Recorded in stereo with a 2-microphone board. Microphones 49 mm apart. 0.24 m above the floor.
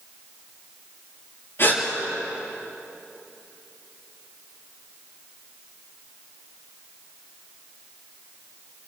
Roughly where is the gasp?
Left.